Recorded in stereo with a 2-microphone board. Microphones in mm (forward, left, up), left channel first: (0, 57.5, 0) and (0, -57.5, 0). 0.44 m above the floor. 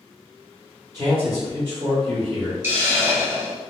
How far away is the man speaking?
About 1.7 m.